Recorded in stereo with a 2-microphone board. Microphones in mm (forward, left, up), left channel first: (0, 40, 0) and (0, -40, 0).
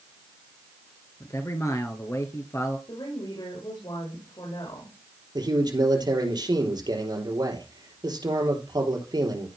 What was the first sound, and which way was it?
A man speaking, 40° left (ahead or behind).